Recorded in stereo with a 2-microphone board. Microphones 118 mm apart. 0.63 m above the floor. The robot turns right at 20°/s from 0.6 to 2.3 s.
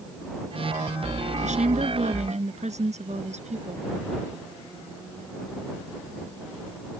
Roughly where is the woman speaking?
Right.